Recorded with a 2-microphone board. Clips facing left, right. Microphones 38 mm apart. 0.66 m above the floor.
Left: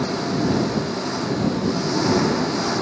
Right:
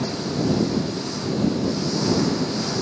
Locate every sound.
0.0 s an engine running: 35° left (ahead or behind)